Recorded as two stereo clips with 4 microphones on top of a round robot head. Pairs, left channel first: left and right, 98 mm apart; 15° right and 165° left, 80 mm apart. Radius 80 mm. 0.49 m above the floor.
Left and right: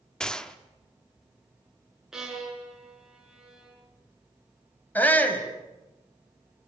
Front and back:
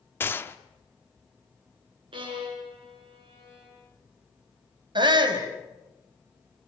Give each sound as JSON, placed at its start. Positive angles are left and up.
{"t": 0.2, "sound": "a gunshot", "azimuth_deg": 15, "distance_m": 1.2}
{"t": 2.1, "sound": "a violin", "azimuth_deg": -175, "distance_m": 5.5}
{"t": 5.0, "sound": "a shout", "azimuth_deg": 160, "distance_m": 4.0}